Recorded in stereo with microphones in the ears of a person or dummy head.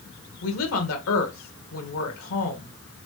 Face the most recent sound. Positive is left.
turn(degrees=80)